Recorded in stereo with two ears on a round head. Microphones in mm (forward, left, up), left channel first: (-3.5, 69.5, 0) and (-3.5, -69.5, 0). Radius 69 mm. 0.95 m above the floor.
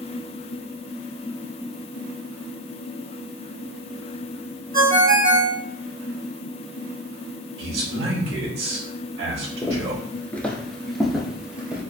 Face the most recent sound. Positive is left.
turn(degrees=-10)  # may be behind; listen again after turning